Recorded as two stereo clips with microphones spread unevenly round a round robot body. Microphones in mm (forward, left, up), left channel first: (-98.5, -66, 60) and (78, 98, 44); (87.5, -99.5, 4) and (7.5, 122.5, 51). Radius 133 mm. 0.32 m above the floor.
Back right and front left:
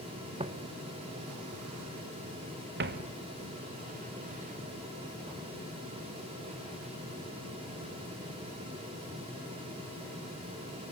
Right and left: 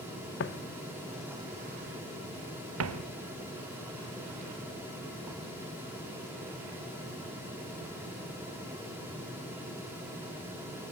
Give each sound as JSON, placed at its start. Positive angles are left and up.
{"t": 0.4, "sound": "footsteps", "azimuth_deg": -30, "distance_m": 1.1}